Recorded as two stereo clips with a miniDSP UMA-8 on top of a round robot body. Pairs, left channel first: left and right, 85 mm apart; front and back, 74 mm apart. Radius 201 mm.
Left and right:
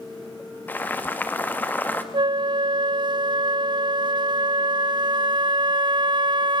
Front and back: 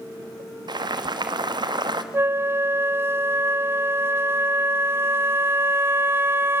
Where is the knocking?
I don't hear knocking.